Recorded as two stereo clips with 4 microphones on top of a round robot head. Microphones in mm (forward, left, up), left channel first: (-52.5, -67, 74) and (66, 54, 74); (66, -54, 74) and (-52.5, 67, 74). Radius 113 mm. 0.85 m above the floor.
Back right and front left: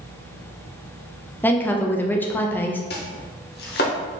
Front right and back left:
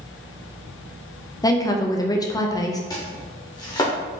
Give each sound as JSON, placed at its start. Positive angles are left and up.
{"t": 1.4, "sound": "a woman speaking", "azimuth_deg": -70, "distance_m": 0.7}
{"t": 2.9, "sound": "chopping", "azimuth_deg": -115, "distance_m": 0.7}